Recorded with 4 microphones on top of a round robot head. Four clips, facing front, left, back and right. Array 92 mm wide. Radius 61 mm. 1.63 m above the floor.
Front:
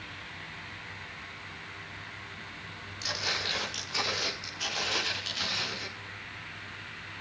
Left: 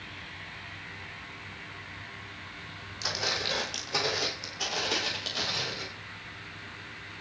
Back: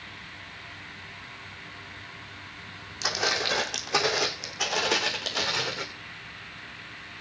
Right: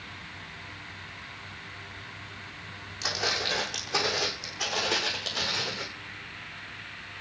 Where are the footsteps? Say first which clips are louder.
Right 2 dB, back 7 dB; 175° left, 7 m; by 5.8 s straight behind, 8.5 m.